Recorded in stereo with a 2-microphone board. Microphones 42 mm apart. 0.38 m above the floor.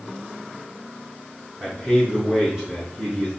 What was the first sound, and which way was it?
A man speaking, 25° right (ahead or behind).